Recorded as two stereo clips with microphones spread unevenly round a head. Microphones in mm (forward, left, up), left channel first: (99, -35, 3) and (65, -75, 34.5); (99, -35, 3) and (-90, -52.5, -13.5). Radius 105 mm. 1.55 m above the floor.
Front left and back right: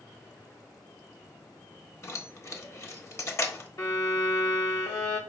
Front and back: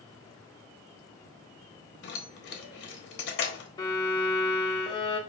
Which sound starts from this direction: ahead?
Keys jangling, at 2.0 s.